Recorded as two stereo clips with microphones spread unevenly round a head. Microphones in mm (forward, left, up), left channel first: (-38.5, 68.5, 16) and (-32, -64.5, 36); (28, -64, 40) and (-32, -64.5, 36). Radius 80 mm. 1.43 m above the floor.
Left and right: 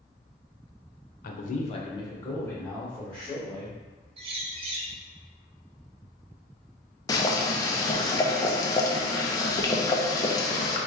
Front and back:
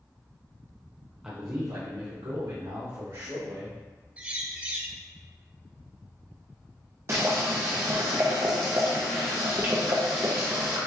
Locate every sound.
1.2 s a man speaking: 100° left, 0.8 m; by 3.8 s straight behind, 3 m
4.2 s a bird: 115° right, 0.8 m
7.1 s boiling: 150° left, 0.6 m